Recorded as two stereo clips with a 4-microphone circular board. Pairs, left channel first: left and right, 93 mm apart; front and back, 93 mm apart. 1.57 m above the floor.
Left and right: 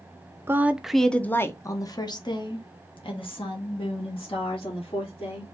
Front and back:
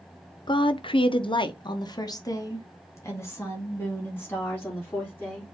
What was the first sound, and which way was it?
A woman speaking, 25° right.